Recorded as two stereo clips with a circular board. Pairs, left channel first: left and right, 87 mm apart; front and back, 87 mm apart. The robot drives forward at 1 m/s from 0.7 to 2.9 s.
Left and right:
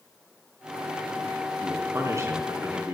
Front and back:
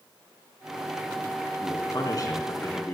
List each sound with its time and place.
1.6 s a man speaking: 35° right, 4 m; by 2.9 s 45° right, 3 m